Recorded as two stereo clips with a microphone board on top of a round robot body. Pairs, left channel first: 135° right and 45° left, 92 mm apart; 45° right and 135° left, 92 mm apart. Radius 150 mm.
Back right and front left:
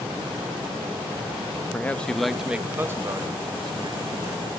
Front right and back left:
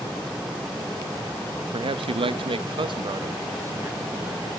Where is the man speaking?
155° left, 1.1 m; by 4.5 s 70° left, 1.6 m.